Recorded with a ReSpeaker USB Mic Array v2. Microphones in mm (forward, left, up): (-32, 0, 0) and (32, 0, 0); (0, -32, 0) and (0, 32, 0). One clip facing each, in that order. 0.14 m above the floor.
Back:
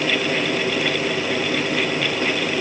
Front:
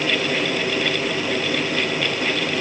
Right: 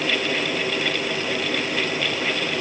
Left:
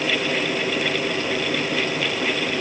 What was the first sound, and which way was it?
Only background noise.